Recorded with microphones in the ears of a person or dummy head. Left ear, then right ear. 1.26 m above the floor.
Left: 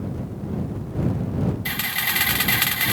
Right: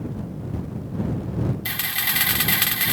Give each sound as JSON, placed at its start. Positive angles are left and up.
{"t": 1.6, "sound": "a camera shutter", "side_deg": -5}